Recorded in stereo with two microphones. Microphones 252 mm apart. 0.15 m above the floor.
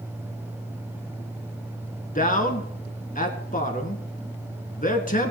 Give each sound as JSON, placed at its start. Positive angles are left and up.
{"t": 2.1, "sound": "a man speaking", "side_deg": 30, "distance_m": 1.9}